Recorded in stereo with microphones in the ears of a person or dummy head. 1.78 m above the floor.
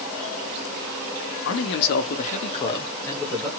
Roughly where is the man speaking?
Left.